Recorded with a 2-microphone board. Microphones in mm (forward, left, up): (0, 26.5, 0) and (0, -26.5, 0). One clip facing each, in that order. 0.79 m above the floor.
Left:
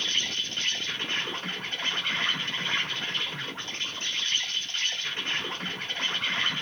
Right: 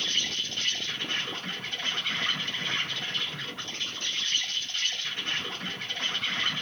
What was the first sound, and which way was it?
An insect, 40° left (ahead or behind).